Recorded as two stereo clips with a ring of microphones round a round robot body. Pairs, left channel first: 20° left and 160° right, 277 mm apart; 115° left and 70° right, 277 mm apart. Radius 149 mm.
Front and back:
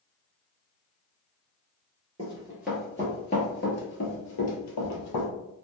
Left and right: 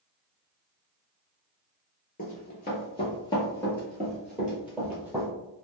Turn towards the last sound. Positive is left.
turn(degrees=15)